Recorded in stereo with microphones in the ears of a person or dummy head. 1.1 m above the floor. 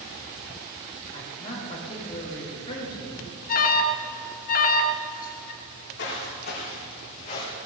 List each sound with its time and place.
1.1 s a man speaking: 25° left (ahead or behind), 5.5 m
3.5 s an alarm: 40° left (ahead or behind), 1.2 m
5.6 s footsteps: 55° left (ahead or behind), 5 m; by 7.6 s 30° left (ahead or behind), 4 m